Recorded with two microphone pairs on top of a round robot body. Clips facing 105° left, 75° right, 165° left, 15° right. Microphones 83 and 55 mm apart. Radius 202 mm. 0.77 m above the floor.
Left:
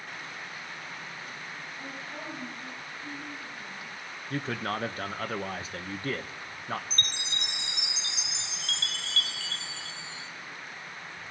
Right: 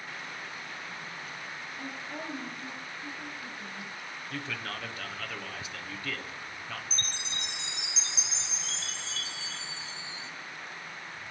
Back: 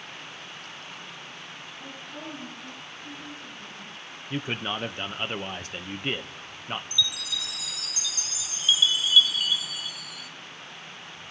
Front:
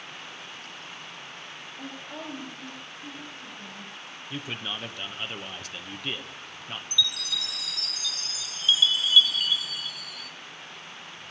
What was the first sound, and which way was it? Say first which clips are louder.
A woman speaking: right 2 dB, front 3 dB; 10° right.